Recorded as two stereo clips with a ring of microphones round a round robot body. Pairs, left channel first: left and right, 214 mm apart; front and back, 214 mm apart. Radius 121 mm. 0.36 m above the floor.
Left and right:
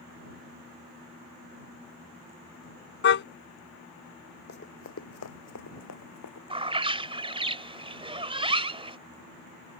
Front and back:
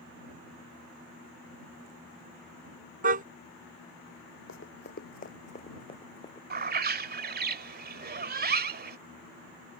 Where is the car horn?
125° left.